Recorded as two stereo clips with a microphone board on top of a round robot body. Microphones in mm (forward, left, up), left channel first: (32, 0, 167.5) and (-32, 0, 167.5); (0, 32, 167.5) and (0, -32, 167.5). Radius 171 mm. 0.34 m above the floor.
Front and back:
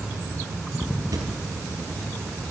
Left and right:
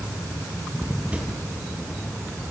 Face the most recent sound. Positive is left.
turn(degrees=-160)